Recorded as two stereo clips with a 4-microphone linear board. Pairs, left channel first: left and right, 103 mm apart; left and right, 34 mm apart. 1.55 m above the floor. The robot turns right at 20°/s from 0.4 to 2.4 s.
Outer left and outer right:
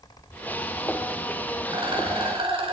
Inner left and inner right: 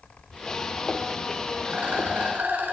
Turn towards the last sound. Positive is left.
turn(degrees=-60)  # may be behind; listen again after turning